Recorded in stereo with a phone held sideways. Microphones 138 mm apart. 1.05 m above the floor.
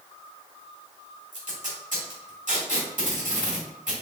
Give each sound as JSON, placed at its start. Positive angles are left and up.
{"t": 1.3, "sound": "tape being pulled", "side_deg": -65, "distance_m": 1.7}